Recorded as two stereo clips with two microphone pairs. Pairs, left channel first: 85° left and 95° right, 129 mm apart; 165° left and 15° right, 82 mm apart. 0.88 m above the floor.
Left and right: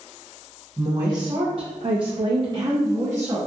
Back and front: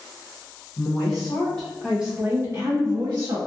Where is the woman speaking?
155° right, 0.8 m; by 3.4 s 25° right, 0.9 m.